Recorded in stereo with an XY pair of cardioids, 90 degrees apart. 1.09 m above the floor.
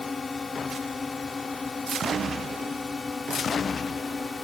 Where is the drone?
35° left.